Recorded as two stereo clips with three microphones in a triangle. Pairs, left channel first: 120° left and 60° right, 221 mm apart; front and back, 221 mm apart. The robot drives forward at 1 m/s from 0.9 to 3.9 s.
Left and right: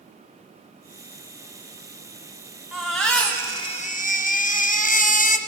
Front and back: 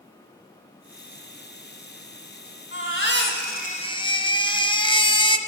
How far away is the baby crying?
About 1.6 m.